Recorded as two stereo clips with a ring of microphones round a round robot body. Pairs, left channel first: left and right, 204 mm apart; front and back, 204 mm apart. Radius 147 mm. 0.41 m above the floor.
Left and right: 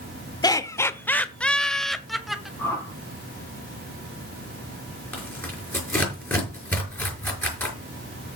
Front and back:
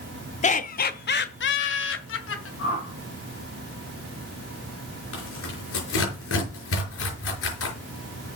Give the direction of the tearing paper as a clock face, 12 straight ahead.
12 o'clock.